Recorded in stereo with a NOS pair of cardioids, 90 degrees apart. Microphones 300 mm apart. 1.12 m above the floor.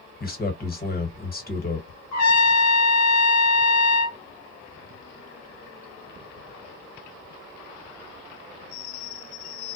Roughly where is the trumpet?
Ahead left.